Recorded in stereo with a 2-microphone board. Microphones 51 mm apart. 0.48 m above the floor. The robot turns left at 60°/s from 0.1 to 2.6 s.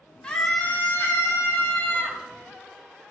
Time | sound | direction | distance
0.2 | a scream | 165° left | 4 m